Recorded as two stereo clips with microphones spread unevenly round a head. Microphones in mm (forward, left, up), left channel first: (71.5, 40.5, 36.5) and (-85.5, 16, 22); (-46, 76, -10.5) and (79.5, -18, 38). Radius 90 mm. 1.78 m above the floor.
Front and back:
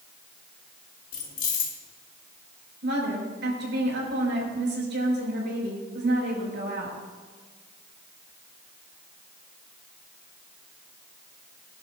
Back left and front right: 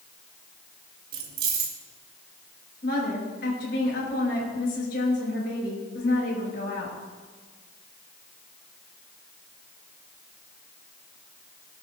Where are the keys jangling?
35° right, 2 m.